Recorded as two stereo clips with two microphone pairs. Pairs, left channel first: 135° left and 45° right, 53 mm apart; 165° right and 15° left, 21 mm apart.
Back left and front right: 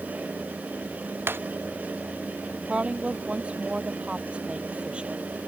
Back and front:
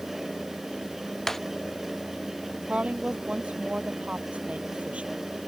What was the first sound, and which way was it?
Breaking glass, 90° right.